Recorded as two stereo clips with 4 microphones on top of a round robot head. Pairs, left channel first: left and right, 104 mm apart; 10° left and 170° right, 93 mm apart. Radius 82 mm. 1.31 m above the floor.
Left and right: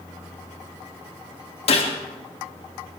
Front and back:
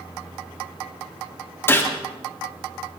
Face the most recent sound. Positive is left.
turn(degrees=75)